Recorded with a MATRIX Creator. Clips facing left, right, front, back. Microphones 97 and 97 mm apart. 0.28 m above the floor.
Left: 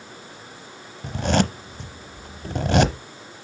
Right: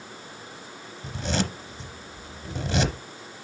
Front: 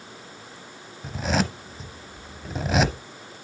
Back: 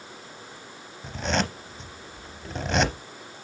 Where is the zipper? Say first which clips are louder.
Left 7 dB, front 2 dB; 85° left, 0.7 m.